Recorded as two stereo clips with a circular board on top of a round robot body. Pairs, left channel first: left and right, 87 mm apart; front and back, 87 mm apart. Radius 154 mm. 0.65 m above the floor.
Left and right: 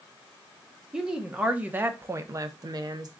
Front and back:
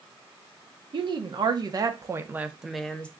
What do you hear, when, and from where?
0.9 s a woman speaking: 170° right, 1.1 m; by 3.1 s 70° right, 0.8 m